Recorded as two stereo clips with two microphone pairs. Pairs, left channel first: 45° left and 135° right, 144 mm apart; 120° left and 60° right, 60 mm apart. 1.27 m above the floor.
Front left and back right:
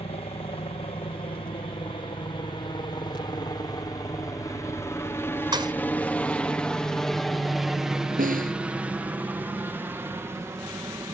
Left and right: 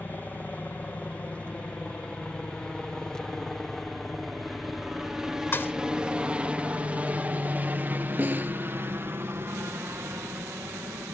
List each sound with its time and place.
0.0 s a helicopter: 70° left; by 11.1 s 70° right
5.5 s a thud: 170° left
8.2 s a snare drum: 120° right